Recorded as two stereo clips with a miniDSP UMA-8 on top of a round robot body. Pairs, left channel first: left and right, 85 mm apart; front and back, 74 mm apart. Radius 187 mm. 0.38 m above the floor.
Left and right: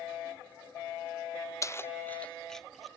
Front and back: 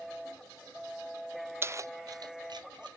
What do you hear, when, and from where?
1.6 s keys jangling: 130° left; by 2.9 s straight behind